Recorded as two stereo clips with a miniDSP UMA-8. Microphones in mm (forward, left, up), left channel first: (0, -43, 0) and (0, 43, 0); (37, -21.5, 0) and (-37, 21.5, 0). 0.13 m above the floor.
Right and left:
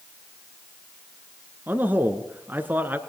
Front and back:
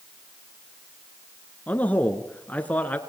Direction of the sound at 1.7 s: 35° left.